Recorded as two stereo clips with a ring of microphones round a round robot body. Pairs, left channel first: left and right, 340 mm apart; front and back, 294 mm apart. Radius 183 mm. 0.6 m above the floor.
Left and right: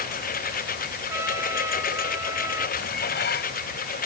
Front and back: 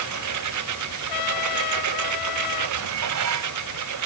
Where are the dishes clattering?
150° left.